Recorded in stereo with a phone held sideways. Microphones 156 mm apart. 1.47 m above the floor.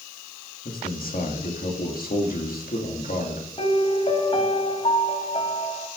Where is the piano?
40° left (ahead or behind), 1.6 m.